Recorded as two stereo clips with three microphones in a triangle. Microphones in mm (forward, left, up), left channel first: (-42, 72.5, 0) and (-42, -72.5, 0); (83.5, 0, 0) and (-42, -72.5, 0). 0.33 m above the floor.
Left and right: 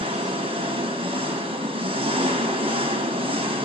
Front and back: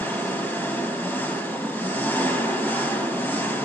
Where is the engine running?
45° right, 1.6 m.